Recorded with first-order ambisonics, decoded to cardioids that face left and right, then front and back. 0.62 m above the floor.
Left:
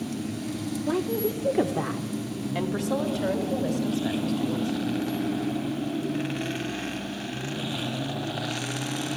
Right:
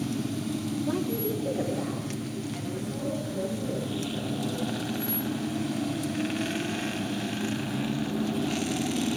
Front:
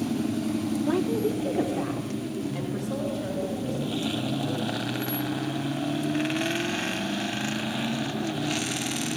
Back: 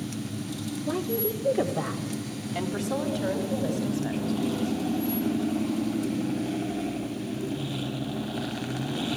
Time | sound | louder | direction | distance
0.9 | a woman speaking | left 5 dB, front 2 dB | 35° left | 1.4 m